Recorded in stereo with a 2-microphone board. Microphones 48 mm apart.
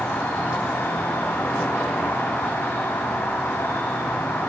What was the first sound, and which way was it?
An insect, 60° left (ahead or behind).